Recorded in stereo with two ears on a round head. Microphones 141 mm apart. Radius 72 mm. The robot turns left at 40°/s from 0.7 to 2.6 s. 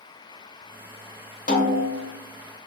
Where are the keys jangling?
No keys jangling in this recording.